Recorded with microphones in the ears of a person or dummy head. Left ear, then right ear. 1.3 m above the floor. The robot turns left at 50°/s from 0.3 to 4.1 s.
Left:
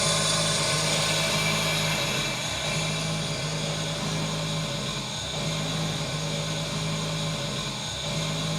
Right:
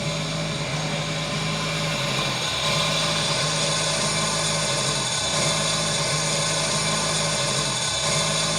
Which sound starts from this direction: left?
An engine running, at 0.0 s.